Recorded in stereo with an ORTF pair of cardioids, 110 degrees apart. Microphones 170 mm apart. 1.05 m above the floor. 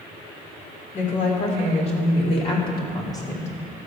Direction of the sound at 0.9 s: 50° left.